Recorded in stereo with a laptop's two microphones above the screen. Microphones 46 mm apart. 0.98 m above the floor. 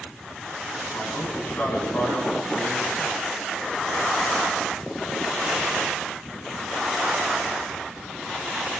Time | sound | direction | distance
0.9 | a man speaking | 50° left (ahead or behind) | 8 m